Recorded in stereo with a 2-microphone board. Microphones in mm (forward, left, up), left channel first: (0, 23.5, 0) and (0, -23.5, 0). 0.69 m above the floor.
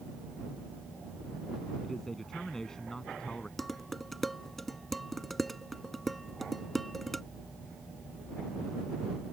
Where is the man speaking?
5° left (ahead or behind); by 3.5 s 15° left (ahead or behind).